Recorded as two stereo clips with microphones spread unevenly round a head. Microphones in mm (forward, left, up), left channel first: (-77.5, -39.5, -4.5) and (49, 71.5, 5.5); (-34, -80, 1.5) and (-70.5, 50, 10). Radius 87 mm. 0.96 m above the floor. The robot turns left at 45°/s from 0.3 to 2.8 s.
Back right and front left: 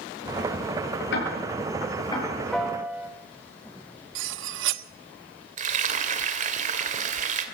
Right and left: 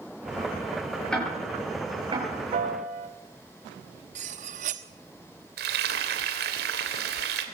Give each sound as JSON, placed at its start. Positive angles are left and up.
{"t": 1.1, "sound": "ticking", "azimuth_deg": -160, "distance_m": 8.5}
{"t": 2.5, "sound": "a piano", "azimuth_deg": 135, "distance_m": 1.8}
{"t": 4.2, "sound": "cutlery clinking", "azimuth_deg": 55, "distance_m": 1.1}
{"t": 5.6, "sound": "frying", "azimuth_deg": 85, "distance_m": 2.5}